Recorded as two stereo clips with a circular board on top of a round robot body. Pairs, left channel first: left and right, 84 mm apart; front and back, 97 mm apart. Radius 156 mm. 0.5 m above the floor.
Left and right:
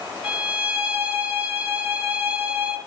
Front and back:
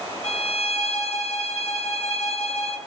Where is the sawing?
No sawing in this recording.